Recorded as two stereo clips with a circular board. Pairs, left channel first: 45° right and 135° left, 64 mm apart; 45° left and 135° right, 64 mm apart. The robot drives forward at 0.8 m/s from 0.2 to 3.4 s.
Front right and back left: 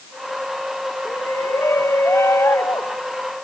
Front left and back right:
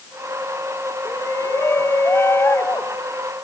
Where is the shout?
Straight ahead.